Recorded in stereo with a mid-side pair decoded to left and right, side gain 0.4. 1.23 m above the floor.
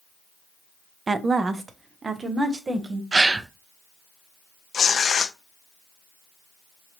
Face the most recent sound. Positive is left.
turn(degrees=50)